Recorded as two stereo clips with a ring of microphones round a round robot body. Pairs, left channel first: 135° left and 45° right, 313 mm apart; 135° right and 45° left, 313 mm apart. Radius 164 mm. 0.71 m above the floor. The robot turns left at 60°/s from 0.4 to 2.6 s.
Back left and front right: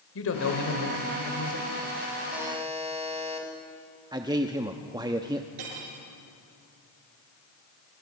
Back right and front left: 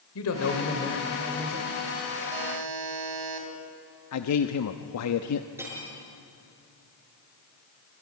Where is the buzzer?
45° left, 4 m; by 3.5 s 25° left, 4 m.